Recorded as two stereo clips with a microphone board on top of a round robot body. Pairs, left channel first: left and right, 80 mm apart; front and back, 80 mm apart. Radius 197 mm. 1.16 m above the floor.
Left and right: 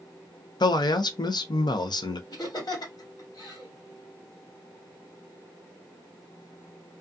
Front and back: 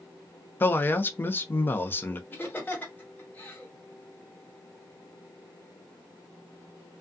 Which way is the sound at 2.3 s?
65° left.